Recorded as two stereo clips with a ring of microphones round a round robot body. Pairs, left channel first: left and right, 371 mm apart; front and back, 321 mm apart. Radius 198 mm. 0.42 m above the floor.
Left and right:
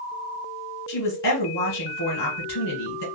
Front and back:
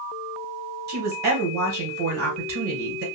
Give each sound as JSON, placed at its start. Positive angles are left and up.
{"t": 0.9, "sound": "a woman speaking", "azimuth_deg": 135, "distance_m": 3.0}